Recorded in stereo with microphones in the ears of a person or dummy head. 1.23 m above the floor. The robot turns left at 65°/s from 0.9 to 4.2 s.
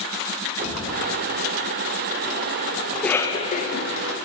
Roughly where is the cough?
Behind.